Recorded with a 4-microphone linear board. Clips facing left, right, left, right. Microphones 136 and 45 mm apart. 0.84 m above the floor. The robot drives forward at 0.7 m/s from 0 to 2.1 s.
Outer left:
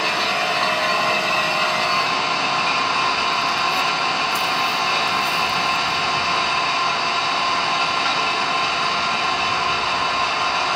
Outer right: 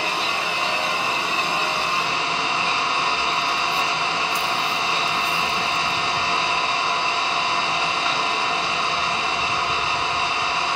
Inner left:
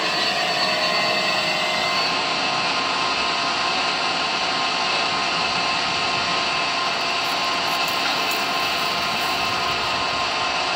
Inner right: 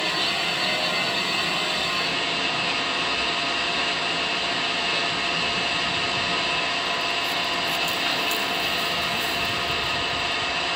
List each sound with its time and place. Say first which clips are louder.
0.0 s an engine running: outer left 3 dB, inner left 3 dB; 80° left, 4 m